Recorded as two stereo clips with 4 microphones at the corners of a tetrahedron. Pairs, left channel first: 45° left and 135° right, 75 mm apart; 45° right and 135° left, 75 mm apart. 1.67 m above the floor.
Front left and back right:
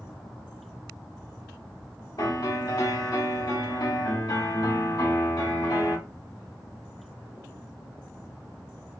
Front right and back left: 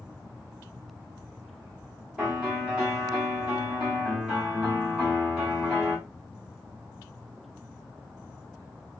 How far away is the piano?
About 2 m.